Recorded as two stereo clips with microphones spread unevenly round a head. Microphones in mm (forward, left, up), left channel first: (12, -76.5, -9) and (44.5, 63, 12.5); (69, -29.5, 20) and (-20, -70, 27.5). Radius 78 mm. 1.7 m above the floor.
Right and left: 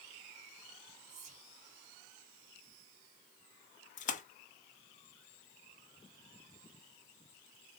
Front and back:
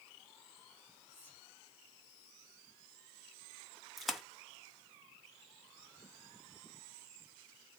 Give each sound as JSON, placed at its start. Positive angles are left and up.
{"t": 1.1, "sound": "whispering", "azimuth_deg": 105, "distance_m": 0.7}
{"t": 4.0, "sound": "a splash", "azimuth_deg": -65, "distance_m": 0.9}